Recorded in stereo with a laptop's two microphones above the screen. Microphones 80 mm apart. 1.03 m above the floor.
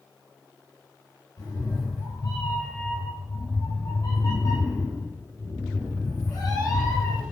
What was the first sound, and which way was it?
A cat meowing, 50° left (ahead or behind).